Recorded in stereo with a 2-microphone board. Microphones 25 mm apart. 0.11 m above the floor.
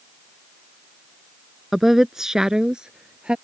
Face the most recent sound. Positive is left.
turn(degrees=-45)  # may be behind; listen again after turning